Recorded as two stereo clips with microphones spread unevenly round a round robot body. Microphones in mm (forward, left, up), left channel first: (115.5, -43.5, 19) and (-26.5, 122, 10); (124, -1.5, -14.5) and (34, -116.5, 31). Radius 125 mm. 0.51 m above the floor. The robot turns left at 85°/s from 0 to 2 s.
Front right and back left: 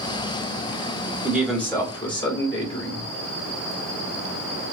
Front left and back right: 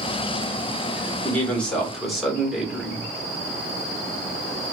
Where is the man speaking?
65° left, 1.4 m; by 3.1 s straight ahead, 1.4 m.